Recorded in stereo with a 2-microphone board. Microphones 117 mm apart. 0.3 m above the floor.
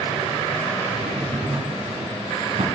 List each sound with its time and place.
0.9 s a drawer: 70° right (ahead or behind), 1.5 m